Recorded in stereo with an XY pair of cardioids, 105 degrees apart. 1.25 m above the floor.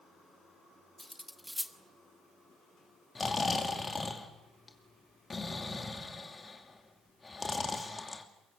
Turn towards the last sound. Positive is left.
turn(degrees=25)